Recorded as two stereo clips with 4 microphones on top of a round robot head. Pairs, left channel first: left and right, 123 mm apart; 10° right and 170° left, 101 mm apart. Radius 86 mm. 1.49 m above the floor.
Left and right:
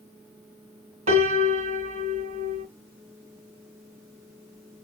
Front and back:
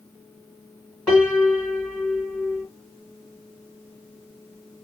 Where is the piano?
95° right, 2 m.